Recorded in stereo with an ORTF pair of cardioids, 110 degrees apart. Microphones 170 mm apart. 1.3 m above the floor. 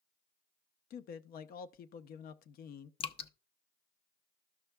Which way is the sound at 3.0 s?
35° left.